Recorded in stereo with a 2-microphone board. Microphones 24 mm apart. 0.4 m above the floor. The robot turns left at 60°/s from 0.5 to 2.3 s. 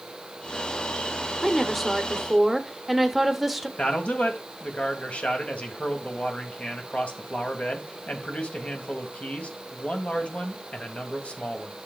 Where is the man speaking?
55° left (ahead or behind), 2 m.